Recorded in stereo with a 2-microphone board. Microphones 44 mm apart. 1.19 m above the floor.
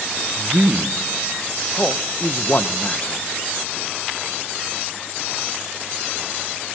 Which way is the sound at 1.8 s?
40° left (ahead or behind).